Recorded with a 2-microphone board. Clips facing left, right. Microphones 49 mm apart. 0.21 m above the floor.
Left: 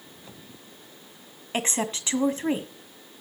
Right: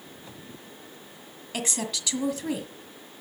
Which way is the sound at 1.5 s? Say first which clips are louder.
Left 4 dB; 35° left (ahead or behind).